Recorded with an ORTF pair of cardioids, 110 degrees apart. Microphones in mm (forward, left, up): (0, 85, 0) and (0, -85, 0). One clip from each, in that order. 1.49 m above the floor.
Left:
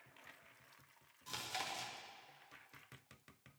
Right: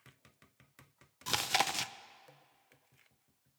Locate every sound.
1.3 s chewing: 70° right, 0.6 m